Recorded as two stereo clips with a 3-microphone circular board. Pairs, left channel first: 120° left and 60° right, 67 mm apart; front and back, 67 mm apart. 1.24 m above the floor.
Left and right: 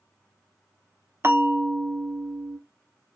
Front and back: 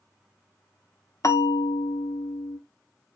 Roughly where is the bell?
Ahead.